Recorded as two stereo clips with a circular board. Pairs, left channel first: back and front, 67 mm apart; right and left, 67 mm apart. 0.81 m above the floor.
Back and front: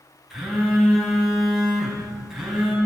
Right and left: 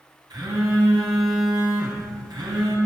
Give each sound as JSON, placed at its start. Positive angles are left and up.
{"t": 0.3, "sound": "a phone buzzing", "azimuth_deg": 85, "distance_m": 3.0}